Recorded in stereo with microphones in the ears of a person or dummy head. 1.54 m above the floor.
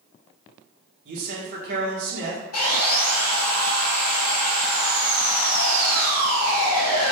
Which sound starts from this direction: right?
A man speaking, at 1.1 s.